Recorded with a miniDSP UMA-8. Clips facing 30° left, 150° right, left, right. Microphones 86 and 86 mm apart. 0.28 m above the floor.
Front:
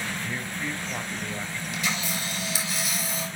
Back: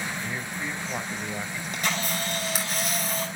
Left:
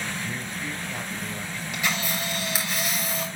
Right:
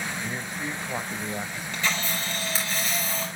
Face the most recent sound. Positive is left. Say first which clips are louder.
# back 2 dB, even
turn(degrees=170)